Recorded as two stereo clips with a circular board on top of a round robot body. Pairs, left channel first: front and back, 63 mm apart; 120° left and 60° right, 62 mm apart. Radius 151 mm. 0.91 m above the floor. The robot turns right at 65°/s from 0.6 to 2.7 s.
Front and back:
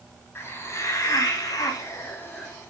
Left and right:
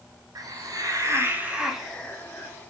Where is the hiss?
50° right, 2 m; by 2.5 s 75° left, 2 m.